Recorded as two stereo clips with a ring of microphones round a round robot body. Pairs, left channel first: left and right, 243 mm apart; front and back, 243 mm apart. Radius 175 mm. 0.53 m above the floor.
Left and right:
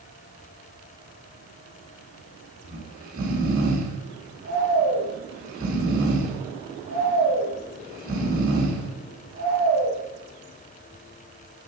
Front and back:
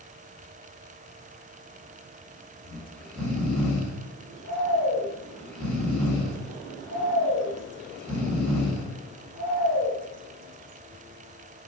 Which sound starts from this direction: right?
Snoring, at 2.6 s.